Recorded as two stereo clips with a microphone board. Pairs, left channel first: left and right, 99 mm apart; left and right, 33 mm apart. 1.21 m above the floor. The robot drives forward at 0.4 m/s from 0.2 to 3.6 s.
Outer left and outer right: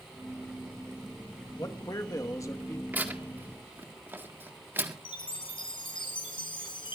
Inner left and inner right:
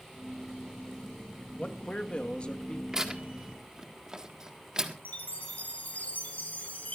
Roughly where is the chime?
Left.